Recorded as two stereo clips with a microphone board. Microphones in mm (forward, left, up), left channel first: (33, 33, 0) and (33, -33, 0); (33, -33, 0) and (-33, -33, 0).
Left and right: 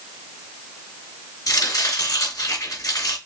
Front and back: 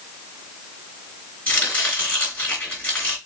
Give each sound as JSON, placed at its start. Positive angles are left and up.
{"t": 1.5, "sound": "chopping", "azimuth_deg": 65, "distance_m": 3.5}